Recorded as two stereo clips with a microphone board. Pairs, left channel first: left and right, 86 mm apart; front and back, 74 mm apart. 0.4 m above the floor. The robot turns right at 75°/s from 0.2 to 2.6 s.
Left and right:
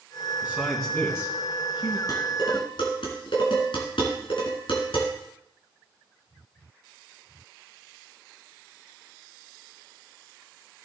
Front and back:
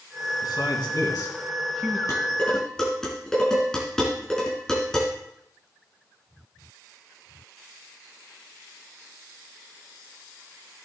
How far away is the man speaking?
About 3.5 m.